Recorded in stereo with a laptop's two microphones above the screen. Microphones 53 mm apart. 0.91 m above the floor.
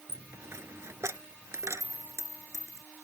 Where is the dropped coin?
70° right (ahead or behind).